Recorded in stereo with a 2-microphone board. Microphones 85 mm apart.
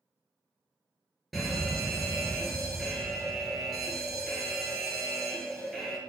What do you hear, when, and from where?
1.3 s a fire alarm: centre (ahead or behind), 3 m